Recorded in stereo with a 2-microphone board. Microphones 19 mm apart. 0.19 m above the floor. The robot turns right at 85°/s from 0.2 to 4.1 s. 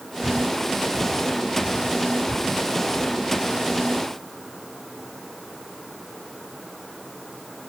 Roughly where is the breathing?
Right.